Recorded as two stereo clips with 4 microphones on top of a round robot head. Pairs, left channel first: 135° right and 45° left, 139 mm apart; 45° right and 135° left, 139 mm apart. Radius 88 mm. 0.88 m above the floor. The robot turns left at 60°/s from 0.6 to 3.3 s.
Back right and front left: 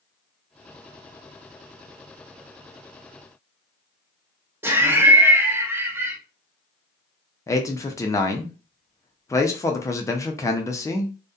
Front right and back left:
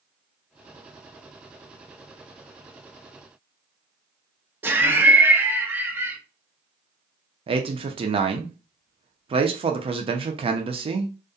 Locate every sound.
4.6 s laughter: 85° left, 0.6 m
7.5 s a man speaking: 165° left, 0.5 m